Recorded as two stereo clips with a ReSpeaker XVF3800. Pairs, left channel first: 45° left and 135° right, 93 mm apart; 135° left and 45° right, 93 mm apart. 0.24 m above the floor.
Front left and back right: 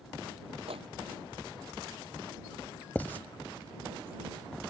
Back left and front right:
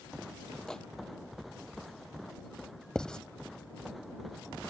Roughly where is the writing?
Left.